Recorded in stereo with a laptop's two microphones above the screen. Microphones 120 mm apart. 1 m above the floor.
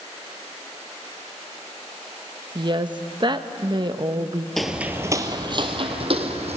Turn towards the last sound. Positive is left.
turn(degrees=-60)  # may be behind; listen again after turning